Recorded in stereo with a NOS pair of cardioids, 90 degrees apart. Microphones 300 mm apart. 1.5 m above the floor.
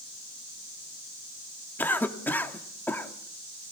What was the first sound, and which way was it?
A cough, 5° left.